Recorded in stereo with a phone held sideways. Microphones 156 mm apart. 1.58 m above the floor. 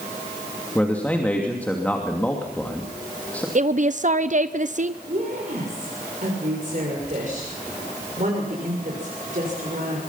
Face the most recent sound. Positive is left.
turn(degrees=-55)  # may be behind; listen again after turning